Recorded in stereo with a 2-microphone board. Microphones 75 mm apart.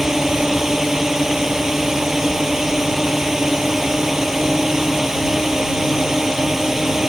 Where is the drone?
5° right (ahead or behind).